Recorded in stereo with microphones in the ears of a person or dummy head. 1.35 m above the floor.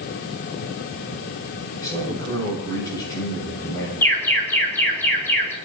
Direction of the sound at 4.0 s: 10° left (ahead or behind).